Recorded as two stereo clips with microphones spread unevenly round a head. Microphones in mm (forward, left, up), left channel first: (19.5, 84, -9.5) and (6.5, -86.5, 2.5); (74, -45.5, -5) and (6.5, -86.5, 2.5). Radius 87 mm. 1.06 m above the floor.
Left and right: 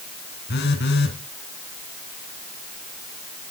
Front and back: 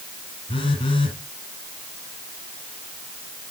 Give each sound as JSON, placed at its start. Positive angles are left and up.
{"t": 0.5, "sound": "a phone buzzing", "azimuth_deg": 60, "distance_m": 2.0}